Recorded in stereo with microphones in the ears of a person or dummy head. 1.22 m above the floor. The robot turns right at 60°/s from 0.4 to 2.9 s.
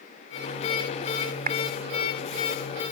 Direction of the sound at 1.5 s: 45° right (ahead or behind).